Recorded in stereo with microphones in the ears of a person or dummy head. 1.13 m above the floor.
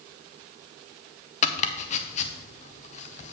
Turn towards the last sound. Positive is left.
turn(degrees=35)  # may be behind; listen again after turning